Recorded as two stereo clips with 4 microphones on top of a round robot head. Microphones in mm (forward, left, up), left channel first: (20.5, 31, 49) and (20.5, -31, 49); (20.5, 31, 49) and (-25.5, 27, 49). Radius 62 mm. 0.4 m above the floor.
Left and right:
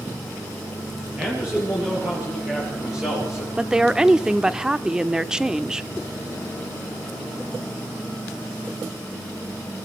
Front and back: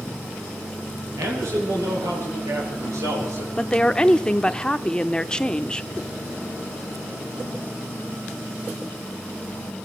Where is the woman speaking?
30° right, 0.8 m.